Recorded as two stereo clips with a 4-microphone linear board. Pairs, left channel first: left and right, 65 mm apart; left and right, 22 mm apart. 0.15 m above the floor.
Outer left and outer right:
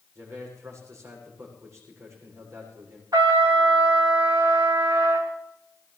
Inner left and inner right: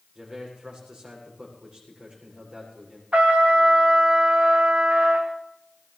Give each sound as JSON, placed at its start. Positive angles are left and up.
{"t": 0.1, "sound": "a man speaking", "side_deg": -50, "distance_m": 7.5}
{"t": 3.1, "sound": "a trumpet", "side_deg": -80, "distance_m": 2.5}